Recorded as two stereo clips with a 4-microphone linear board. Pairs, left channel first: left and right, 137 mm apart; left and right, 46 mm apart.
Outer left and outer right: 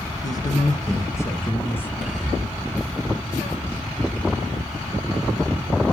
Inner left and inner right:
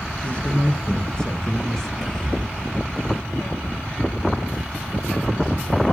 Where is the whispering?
5° right (ahead or behind), 3 m.